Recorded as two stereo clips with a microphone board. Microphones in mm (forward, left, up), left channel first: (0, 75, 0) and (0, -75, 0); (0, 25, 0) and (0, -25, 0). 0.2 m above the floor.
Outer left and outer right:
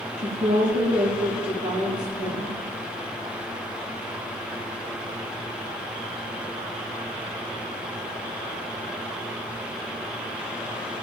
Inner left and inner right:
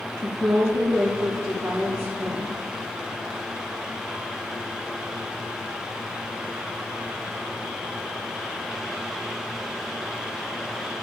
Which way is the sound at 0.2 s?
60° right (ahead or behind).